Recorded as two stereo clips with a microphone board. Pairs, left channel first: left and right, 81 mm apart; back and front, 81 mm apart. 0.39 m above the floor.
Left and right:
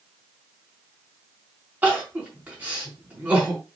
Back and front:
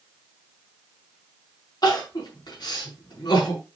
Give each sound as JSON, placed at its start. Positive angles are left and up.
{"t": 1.8, "sound": "crying", "azimuth_deg": -155, "distance_m": 4.5}